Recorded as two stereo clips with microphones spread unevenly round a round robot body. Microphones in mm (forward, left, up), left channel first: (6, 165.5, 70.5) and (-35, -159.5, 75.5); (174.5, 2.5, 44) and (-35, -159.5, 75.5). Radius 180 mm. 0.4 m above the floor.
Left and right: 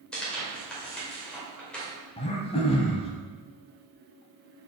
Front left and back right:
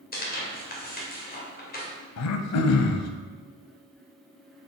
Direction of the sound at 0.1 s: 5° right.